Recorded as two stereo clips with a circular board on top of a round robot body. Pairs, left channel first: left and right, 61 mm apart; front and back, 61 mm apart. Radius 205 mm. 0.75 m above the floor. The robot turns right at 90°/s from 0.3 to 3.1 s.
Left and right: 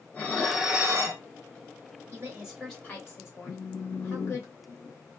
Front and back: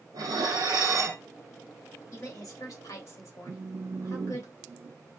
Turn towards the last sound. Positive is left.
turn(degrees=135)